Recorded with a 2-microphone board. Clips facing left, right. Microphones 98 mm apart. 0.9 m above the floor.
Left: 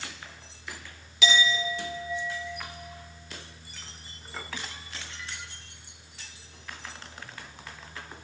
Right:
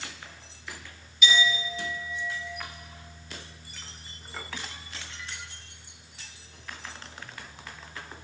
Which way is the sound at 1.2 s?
85° left.